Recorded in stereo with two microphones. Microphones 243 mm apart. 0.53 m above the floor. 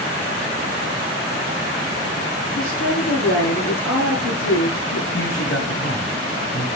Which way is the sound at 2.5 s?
65° left (ahead or behind).